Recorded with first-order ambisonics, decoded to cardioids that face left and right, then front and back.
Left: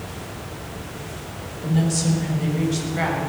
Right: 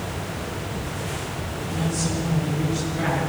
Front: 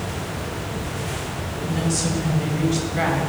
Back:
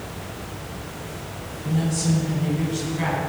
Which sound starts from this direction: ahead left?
A woman speaking, at 1.6 s.